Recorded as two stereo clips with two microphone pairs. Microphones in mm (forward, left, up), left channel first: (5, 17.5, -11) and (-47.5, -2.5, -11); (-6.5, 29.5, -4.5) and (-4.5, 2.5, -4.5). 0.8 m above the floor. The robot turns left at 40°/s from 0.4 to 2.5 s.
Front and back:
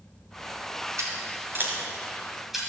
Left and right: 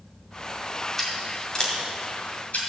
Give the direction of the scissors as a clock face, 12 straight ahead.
6 o'clock.